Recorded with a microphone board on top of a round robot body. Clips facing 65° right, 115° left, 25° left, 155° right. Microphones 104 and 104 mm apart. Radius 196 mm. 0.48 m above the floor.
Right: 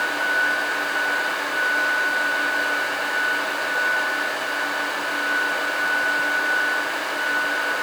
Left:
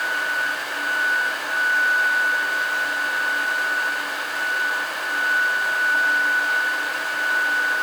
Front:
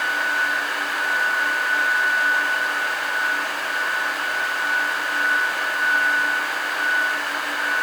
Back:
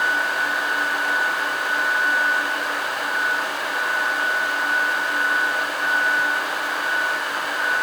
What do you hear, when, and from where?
Only background noise.